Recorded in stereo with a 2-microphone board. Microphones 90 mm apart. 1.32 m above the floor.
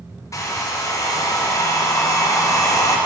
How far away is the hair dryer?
About 0.8 m.